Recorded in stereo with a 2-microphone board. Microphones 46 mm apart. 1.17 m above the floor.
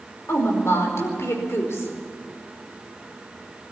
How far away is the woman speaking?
About 5 m.